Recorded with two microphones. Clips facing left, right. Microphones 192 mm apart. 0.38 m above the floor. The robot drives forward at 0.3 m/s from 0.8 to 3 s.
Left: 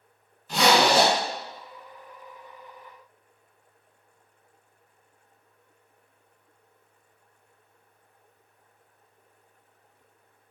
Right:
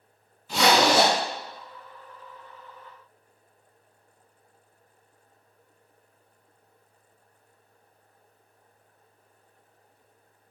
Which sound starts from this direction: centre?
A zipper, at 0.5 s.